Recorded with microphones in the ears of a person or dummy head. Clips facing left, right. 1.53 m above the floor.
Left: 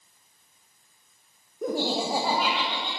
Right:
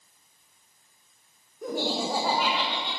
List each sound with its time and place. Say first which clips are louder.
1.6 s laughter: left 2 dB; 55° left (ahead or behind), 1.0 m; by 2.9 s 15° right (ahead or behind), 2 m